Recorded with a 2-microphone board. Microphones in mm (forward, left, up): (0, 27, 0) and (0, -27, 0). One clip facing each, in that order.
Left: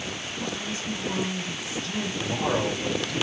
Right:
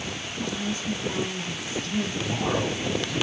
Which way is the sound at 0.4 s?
5° left (ahead or behind).